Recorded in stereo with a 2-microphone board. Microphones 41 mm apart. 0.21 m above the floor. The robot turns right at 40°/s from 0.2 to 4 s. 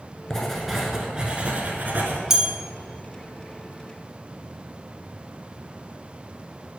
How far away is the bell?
About 0.8 m.